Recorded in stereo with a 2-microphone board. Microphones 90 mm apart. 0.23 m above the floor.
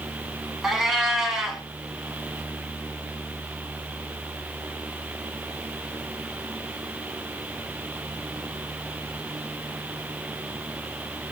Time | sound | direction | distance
0.6 | a cat meowing | 5° right (ahead or behind) | 1.0 m